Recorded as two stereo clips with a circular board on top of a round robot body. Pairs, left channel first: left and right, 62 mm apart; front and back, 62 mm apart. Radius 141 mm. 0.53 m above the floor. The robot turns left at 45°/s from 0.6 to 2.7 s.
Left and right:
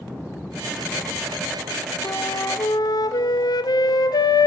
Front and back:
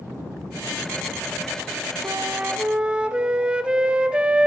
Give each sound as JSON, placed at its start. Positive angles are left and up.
{"t": 2.0, "sound": "a flute", "azimuth_deg": 135, "distance_m": 0.9}